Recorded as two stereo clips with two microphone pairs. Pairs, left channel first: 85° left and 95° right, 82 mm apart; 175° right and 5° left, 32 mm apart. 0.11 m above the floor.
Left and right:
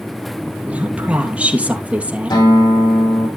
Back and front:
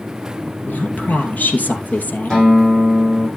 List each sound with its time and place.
0.7 s a woman speaking: 165° right, 2.5 m
2.3 s a guitar: 110° left, 8 m